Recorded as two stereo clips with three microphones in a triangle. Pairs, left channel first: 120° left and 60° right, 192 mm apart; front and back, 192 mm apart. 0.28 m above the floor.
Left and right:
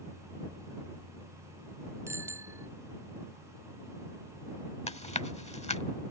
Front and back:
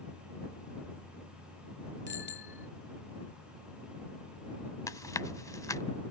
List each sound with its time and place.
2.1 s a bicycle bell: 15° left
4.9 s chewing: 70° left